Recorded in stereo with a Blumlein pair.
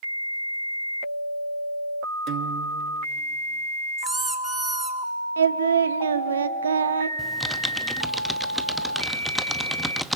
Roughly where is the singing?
Right.